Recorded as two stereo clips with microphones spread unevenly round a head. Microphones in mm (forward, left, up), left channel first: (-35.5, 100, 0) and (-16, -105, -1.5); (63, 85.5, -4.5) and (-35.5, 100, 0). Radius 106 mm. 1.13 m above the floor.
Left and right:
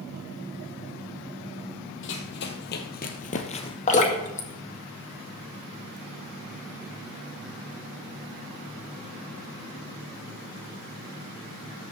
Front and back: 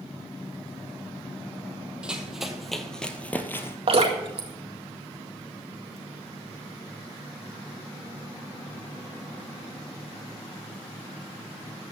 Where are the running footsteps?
95° left, 1.8 m; by 3.8 s 45° left, 1.4 m.